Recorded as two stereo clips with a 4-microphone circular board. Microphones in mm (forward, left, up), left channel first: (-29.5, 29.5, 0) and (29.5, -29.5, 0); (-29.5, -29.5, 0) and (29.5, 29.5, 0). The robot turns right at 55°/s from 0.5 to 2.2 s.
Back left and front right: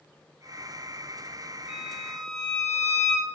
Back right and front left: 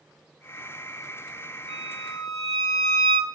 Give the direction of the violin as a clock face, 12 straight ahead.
11 o'clock.